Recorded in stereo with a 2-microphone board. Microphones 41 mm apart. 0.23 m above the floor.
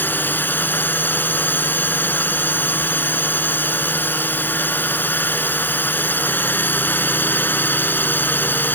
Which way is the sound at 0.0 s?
50° left (ahead or behind).